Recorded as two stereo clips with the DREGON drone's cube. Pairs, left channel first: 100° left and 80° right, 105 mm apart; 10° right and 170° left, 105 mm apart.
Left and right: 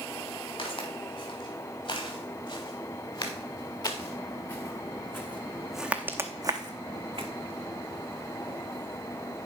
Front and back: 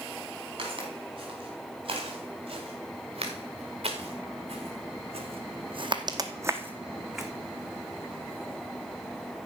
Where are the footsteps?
130° left, 4.5 m; by 7.3 s 100° right, 1.4 m.